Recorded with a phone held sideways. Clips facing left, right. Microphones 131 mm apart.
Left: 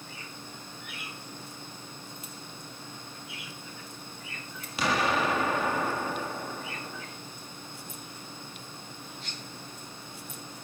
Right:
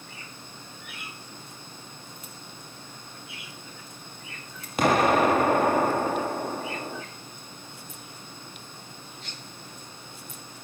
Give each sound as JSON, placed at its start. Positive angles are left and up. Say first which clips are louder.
{"t": 4.8, "sound": "an explosion", "louder": "right 7 dB", "side_deg": -50, "distance_m": 1.1}